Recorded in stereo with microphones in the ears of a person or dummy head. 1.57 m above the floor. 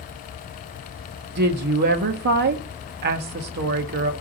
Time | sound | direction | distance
1.4 | a woman speaking | 50° right (ahead or behind) | 1.1 m